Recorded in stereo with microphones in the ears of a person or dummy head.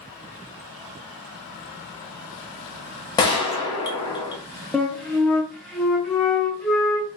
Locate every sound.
3.2 s a gunshot: 25° left (ahead or behind), 0.8 m
4.7 s a flute: centre (ahead or behind), 0.5 m